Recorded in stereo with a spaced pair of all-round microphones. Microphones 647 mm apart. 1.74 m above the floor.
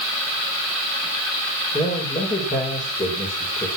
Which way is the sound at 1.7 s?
10° left (ahead or behind).